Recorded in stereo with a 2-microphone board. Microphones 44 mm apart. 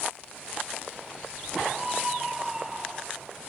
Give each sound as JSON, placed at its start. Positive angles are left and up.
{"t": 1.7, "sound": "a scream", "side_deg": -5}